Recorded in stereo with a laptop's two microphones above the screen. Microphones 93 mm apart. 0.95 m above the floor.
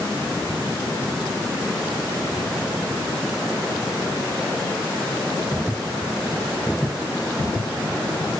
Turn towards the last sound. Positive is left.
No sound to turn to.